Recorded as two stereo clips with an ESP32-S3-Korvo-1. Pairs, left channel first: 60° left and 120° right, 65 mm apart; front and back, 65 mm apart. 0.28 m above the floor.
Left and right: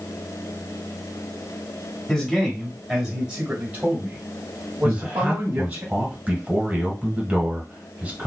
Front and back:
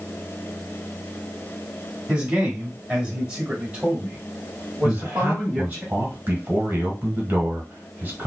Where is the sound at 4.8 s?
165° right, 1.1 m.